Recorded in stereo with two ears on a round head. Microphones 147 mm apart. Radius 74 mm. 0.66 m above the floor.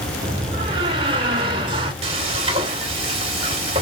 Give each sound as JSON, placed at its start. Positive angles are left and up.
{"t": 0.2, "sound": "a door slam", "side_deg": -30, "distance_m": 2.0}
{"t": 2.0, "sound": "frying", "side_deg": -35, "distance_m": 2.5}